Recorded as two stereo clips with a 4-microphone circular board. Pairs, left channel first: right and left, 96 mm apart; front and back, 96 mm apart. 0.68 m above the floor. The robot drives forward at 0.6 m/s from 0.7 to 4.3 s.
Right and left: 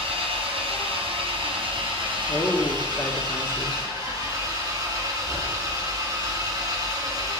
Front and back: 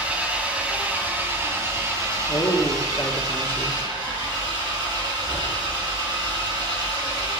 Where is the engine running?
105° left, 2.5 m; by 7.4 s 140° left, 3.5 m.